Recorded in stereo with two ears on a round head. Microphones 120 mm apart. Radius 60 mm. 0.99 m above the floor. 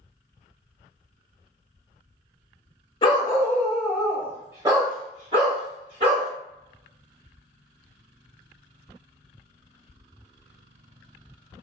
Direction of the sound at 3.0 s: 35° left (ahead or behind).